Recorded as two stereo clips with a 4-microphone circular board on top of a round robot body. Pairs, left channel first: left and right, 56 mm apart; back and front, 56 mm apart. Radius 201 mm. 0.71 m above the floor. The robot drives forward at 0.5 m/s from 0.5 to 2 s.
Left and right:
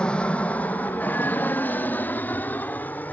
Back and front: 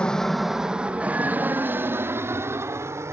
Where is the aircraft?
135° left; by 3.1 s 30° left.